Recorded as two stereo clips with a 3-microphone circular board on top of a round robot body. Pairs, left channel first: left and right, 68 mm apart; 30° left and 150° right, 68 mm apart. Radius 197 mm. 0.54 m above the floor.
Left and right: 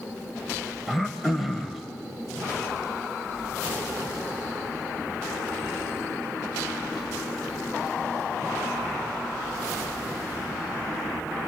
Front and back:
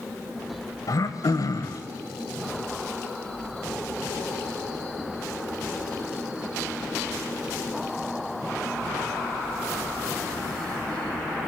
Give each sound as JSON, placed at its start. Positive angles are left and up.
{"t": 0.9, "sound": "throat clearing", "azimuth_deg": 0, "distance_m": 1.3}